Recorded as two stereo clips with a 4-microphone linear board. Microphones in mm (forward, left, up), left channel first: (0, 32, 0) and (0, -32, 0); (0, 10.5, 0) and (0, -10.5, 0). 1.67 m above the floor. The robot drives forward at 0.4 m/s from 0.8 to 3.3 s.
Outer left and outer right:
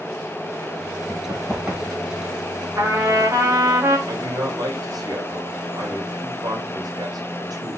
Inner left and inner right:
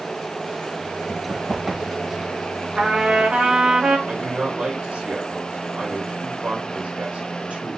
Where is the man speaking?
80° right, 4 m.